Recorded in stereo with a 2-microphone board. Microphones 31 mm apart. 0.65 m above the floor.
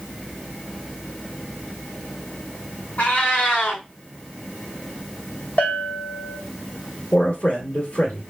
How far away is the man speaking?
About 1.7 m.